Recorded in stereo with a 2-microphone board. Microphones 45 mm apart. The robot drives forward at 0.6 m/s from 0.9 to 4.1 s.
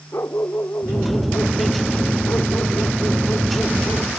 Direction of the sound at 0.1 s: 65° left (ahead or behind).